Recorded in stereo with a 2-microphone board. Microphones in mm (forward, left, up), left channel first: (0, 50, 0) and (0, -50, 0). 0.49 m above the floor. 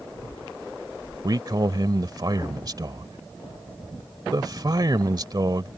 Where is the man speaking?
40° right (ahead or behind).